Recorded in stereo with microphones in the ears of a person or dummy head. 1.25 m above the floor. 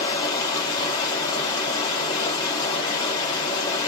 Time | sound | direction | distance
0.0 | running water | 20° left (ahead or behind) | 1.1 m